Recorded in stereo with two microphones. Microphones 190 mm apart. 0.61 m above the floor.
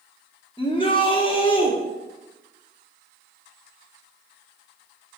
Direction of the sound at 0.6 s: 25° left (ahead or behind).